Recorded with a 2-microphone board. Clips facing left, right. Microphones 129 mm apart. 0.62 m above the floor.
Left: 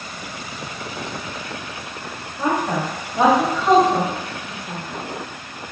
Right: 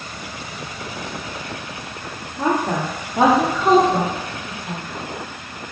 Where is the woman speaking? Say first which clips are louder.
Right 1 dB; 35° right (ahead or behind), 0.9 m; by 4.9 s 60° right (ahead or behind), 1.9 m.